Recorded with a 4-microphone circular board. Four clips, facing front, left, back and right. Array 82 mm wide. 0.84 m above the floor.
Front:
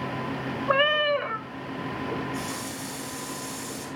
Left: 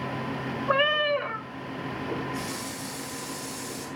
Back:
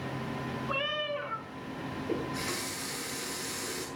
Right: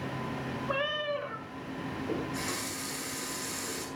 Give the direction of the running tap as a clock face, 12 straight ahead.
4 o'clock.